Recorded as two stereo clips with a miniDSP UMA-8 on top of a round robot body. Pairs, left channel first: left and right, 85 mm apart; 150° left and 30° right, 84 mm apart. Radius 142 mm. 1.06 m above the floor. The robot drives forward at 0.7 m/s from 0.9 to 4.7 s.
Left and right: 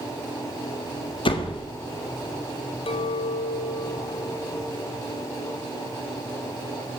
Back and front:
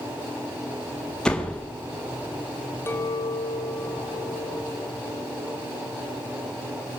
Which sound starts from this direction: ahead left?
A door slam, at 1.2 s.